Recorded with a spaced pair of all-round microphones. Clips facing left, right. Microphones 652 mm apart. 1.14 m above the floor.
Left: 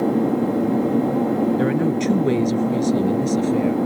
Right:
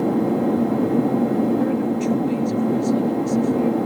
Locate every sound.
1.6 s a woman speaking: 85° left